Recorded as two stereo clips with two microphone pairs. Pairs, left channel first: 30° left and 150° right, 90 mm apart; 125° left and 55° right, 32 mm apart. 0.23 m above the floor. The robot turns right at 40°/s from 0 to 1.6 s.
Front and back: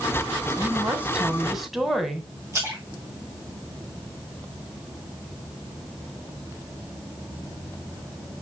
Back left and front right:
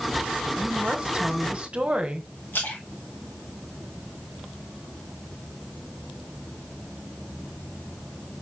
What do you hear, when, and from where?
0.6 s a woman speaking: 100° right, 1.6 m; by 2.3 s 60° right, 1.6 m
2.5 s a splash: 150° left, 4 m